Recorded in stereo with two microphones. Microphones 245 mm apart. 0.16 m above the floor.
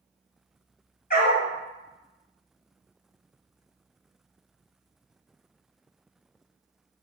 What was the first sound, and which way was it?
A dog barking, 40° left (ahead or behind).